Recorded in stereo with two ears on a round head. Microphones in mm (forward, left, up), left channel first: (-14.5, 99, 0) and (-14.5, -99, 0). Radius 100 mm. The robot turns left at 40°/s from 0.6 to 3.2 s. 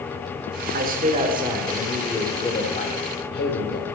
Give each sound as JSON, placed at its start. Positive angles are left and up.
{"t": 0.7, "sound": "a man speaking", "azimuth_deg": -130, "distance_m": 3.0}